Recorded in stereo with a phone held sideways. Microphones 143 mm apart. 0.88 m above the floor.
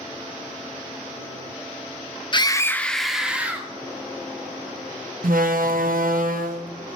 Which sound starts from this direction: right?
A door slam, at 5.2 s.